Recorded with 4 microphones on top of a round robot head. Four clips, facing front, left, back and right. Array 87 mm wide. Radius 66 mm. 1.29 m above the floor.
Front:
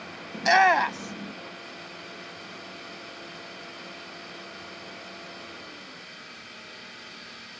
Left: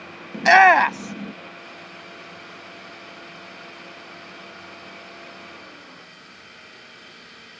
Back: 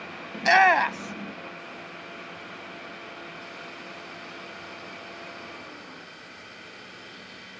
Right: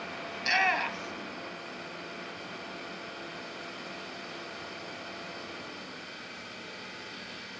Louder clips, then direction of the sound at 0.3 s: Left 16 dB, back 1 dB; 90° left.